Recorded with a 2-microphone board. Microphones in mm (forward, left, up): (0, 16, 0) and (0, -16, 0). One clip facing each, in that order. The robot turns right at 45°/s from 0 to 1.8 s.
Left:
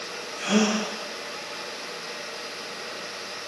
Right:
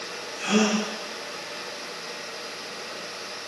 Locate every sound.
0.4 s a gasp: 10° left (ahead or behind), 1.3 m; by 0.8 s 25° left (ahead or behind), 1.3 m